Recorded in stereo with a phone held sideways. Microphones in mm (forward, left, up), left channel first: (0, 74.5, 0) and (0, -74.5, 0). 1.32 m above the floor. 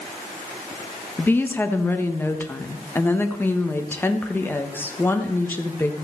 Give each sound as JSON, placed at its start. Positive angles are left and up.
{"t": 1.2, "sound": "a woman speaking", "side_deg": 15, "distance_m": 1.2}